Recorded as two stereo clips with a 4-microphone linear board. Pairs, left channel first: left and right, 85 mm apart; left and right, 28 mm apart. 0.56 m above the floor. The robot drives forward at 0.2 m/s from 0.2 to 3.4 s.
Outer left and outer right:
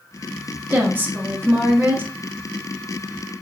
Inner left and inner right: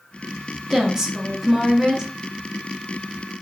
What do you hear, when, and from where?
0.7 s a woman speaking: 20° right (ahead or behind), 1.0 m